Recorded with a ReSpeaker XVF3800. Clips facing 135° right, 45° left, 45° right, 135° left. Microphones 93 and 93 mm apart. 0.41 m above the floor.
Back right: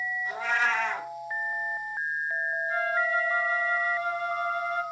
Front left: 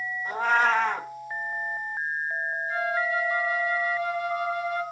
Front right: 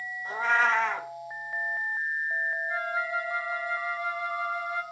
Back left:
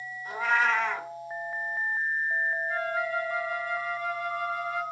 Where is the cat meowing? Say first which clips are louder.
Front left 6 dB, front right 1 dB; 5° left, 0.9 m.